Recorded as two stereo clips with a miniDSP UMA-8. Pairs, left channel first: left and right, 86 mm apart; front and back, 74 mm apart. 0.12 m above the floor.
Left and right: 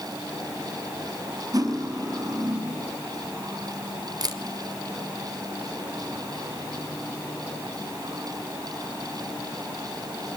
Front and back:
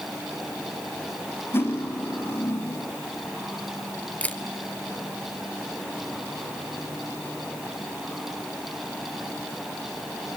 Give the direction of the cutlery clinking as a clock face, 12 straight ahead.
2 o'clock.